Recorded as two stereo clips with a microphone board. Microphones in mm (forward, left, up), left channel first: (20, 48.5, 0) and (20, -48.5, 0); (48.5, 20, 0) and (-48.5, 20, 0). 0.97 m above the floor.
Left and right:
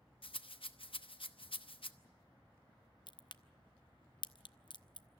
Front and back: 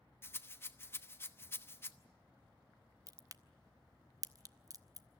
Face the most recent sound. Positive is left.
turn(degrees=125)